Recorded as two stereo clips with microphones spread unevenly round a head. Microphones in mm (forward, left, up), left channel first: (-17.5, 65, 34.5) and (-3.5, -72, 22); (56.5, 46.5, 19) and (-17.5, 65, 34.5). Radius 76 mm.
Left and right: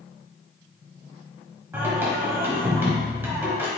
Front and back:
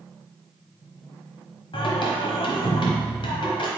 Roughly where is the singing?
Ahead.